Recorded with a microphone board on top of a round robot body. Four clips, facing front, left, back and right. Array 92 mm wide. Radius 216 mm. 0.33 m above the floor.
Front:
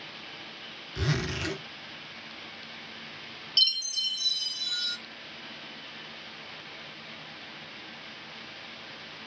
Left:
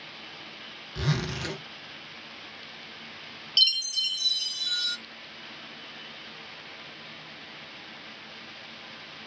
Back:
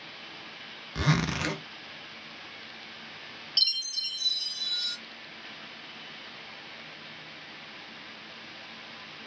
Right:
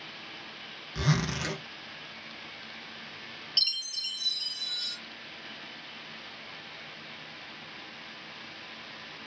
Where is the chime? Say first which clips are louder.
Left 12 dB, front 6 dB; 85° left, 0.6 m.